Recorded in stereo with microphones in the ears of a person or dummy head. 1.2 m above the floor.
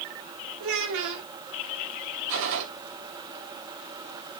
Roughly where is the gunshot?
Right.